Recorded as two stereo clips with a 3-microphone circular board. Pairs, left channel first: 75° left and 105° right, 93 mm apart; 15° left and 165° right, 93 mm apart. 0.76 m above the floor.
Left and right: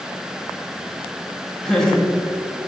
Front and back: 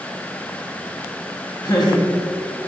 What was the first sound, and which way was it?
Laughter, 5° right.